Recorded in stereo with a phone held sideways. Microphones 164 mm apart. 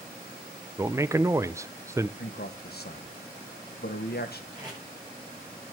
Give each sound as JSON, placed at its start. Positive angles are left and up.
{"t": 0.8, "sound": "a man speaking", "side_deg": -20, "distance_m": 0.5}
{"t": 2.2, "sound": "a man speaking", "side_deg": 75, "distance_m": 1.6}
{"t": 4.5, "sound": "tape being pulled", "side_deg": -25, "distance_m": 7.0}